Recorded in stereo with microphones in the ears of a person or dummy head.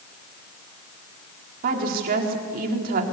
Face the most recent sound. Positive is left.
turn(degrees=-45)  # may be behind; listen again after turning